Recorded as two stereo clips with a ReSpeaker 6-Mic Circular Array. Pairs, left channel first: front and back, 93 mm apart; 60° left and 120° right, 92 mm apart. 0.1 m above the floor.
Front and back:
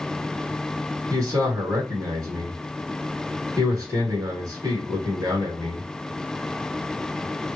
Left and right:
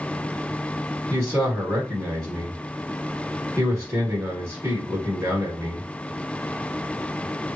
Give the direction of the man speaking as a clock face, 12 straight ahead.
5 o'clock.